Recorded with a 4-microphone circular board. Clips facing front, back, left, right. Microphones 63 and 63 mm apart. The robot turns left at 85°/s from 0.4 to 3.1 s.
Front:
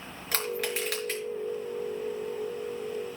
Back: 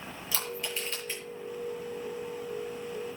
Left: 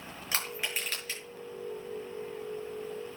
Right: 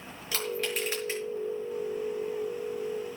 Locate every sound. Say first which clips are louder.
0.3 s crushing: front 6 dB, right 4 dB; 35° left, 6 m; by 1.2 s 35° right, 6 m